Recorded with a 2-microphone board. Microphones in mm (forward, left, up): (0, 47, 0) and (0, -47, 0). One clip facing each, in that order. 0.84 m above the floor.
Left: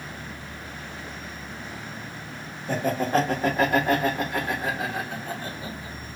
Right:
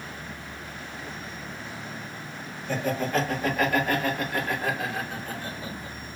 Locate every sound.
2.7 s laughter: 40° left (ahead or behind), 1.4 m; by 6.2 s 15° left (ahead or behind), 3 m